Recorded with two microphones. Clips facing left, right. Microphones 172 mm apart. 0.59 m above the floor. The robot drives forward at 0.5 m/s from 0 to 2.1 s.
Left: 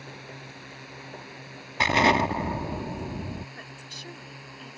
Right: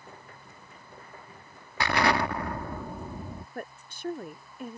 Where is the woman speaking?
50° right (ahead or behind).